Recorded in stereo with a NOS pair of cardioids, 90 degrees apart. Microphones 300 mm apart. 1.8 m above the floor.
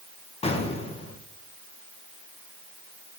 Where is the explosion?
20° left, 2 m.